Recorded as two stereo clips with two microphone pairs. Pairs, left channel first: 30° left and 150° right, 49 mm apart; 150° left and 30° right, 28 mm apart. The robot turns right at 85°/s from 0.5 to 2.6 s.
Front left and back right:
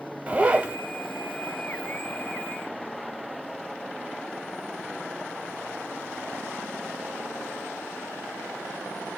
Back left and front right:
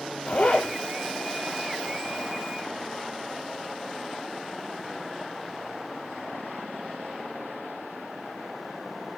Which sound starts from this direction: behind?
A zipper, at 0.3 s.